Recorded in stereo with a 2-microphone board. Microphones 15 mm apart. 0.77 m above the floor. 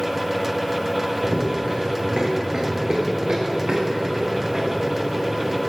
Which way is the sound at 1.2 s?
60° right (ahead or behind).